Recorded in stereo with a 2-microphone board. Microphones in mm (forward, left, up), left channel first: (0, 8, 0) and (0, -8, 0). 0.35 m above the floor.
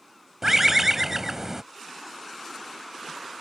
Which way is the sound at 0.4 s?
30° right (ahead or behind).